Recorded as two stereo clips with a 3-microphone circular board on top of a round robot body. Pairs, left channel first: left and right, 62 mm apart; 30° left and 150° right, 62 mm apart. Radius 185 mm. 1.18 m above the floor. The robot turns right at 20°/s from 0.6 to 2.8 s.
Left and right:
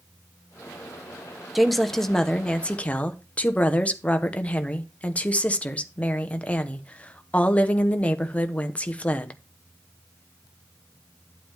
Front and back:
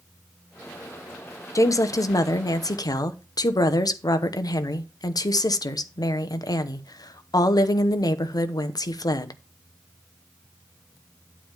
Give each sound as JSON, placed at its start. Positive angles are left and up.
{"t": 1.6, "sound": "a woman speaking", "azimuth_deg": -5, "distance_m": 1.1}